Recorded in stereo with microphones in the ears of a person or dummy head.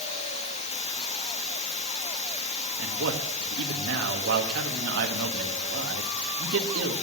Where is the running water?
30° left (ahead or behind), 0.9 m.